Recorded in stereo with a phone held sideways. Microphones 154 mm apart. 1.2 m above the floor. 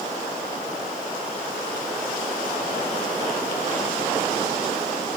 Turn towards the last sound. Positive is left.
No sound to turn to.